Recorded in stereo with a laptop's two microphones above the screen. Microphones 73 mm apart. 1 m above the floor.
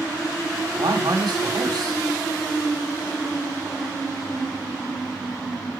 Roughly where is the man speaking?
Right.